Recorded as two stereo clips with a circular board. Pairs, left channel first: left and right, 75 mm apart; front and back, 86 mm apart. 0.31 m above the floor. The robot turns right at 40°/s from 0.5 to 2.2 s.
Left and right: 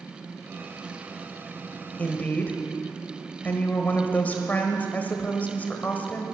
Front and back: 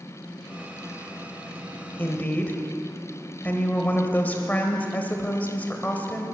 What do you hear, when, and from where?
2.0 s a woman speaking: 40° left, 1.3 m; by 6.2 s 50° left, 1.3 m